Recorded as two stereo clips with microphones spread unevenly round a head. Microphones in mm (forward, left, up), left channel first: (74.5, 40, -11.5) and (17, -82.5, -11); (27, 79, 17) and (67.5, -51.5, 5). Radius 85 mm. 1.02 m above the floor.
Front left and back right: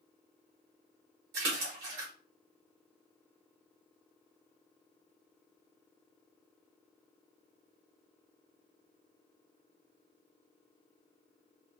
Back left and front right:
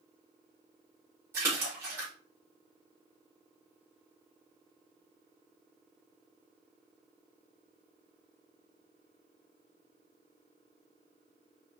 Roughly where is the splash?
Behind right.